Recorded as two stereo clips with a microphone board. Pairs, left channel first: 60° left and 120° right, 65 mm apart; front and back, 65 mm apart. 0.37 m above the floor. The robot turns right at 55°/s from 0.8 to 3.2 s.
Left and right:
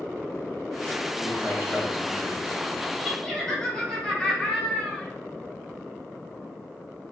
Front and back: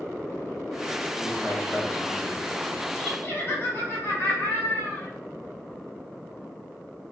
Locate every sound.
1.2 s a man speaking: 105° right, 1.5 m; by 2.6 s 30° right, 1.5 m
3.0 s laughter: 30° right, 1.6 m; by 5.1 s 15° right, 1.6 m